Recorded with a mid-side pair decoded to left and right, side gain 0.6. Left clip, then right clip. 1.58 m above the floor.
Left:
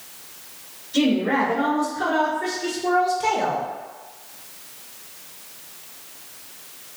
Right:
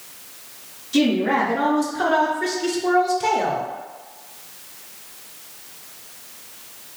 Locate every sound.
0.9 s a woman speaking: 65° right, 1.4 m; by 3.7 s 10° left, 0.9 m